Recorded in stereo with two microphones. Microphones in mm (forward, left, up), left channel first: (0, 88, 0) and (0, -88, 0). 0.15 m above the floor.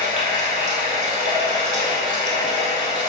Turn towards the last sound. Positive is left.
turn(degrees=-45)  # may be behind; listen again after turning